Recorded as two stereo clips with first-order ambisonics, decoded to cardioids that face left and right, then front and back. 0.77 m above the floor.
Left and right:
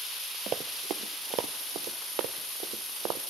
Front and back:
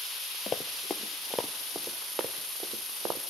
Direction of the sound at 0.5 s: 55° right.